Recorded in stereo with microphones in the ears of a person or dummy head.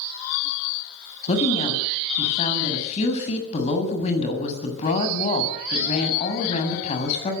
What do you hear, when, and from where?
1.3 s a woman speaking: 40° left (ahead or behind), 7 m